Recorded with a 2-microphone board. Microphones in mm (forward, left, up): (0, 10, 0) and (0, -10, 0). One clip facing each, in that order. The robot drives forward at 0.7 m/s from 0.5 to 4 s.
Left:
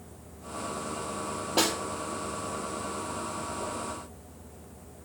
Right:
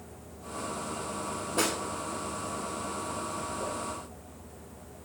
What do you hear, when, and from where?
1.6 s a snare drum: 65° left (ahead or behind), 3 m
3.6 s a whoosh: 5° right (ahead or behind), 5 m